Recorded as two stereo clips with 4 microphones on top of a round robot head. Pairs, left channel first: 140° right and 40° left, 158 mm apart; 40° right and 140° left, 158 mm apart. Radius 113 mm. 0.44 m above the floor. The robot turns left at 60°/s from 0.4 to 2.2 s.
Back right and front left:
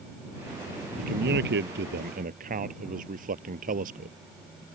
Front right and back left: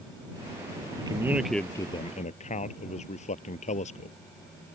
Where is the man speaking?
80° left; by 4.2 s 5° left.